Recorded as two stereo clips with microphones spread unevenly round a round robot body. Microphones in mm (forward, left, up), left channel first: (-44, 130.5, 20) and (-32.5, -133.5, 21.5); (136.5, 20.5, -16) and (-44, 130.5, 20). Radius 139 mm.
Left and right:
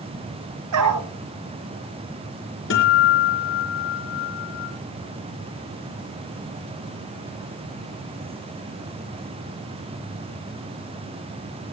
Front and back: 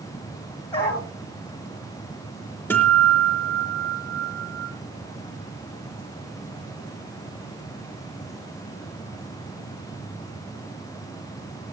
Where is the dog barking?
105° right, 3.5 m.